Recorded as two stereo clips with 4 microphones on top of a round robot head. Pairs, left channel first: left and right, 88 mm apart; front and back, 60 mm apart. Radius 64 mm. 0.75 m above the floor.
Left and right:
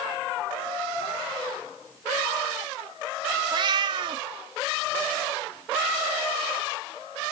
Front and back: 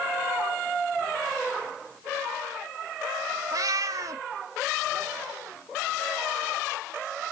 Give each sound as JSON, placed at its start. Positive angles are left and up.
{"t": 3.5, "sound": "a cat meowing", "azimuth_deg": -135, "distance_m": 0.6}